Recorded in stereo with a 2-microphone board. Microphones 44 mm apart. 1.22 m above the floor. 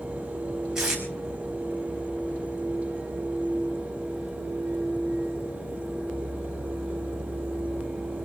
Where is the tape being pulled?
10° right (ahead or behind), 5 m.